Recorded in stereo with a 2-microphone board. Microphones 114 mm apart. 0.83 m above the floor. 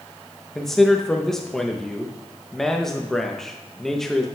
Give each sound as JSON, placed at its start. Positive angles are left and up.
{"t": 0.6, "sound": "a man speaking", "side_deg": 5, "distance_m": 0.6}